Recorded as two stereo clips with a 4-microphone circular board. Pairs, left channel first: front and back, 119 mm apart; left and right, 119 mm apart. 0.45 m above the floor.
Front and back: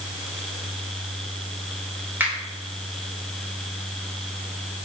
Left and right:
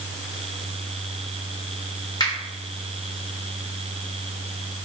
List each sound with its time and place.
2.2 s a finger snap: 115° left, 1.3 m